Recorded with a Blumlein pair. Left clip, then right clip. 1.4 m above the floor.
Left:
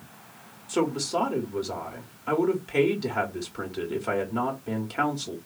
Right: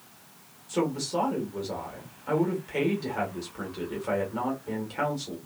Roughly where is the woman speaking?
Ahead.